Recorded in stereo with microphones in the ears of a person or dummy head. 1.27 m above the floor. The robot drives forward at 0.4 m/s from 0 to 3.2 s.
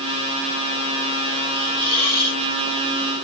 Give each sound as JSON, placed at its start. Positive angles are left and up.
{"t": 1.5, "sound": "a hiss", "side_deg": -35, "distance_m": 6.5}